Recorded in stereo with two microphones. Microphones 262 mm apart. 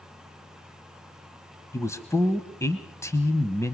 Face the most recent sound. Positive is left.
turn(degrees=10)  # may be behind; listen again after turning